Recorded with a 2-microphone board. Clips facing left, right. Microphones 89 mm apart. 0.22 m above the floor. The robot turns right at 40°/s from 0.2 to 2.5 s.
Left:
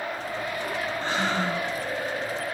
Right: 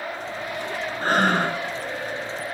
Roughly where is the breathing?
Right.